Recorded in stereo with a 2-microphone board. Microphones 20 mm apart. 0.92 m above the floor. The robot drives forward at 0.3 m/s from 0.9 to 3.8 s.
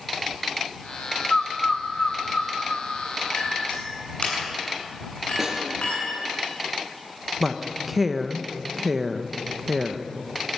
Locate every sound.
1.3 s a bird: 35° left (ahead or behind), 1.1 m; by 2.9 s 40° left (ahead or behind), 0.9 m
3.3 s a clink: 65° left (ahead or behind), 8 m
5.4 s a snare drum: 15° right (ahead or behind), 4 m
7.4 s a woman speaking: 5° right (ahead or behind), 0.8 m